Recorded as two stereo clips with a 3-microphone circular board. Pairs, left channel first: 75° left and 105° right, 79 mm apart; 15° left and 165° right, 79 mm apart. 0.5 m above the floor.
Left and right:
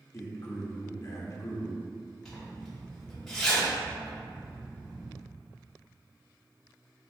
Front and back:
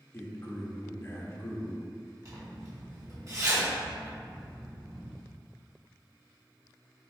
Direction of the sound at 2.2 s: 155° left.